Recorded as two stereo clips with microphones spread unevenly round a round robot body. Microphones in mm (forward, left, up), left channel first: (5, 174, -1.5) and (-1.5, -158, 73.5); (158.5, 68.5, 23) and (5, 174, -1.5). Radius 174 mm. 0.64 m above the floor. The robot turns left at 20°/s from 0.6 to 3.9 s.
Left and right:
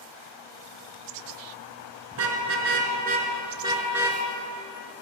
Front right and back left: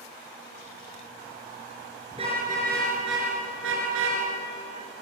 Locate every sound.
2.1 s a car horn: 135° right, 4.5 m; by 4.2 s 175° right, 4.5 m